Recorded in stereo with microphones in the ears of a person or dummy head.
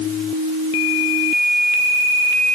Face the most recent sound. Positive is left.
No sound to turn to.